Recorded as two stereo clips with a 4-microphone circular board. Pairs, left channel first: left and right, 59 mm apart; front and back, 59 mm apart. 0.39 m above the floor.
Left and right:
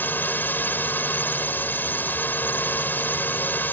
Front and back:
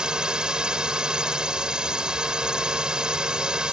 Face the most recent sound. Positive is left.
turn(degrees=110)